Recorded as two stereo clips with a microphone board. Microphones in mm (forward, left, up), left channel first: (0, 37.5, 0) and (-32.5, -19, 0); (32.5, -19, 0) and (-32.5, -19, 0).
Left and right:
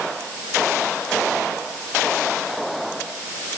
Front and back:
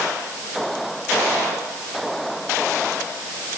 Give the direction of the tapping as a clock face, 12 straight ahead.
No tapping in this recording.